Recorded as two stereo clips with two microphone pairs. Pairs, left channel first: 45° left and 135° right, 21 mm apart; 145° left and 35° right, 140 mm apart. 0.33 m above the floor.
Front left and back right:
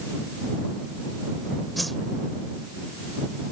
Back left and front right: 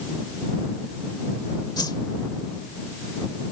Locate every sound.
1.8 s a whoosh: 120° left